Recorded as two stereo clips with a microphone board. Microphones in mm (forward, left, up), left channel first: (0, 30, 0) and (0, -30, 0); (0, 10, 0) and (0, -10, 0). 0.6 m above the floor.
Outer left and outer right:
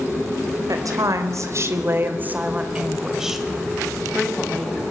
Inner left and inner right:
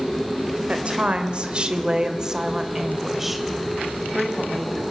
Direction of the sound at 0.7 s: 70° right (ahead or behind).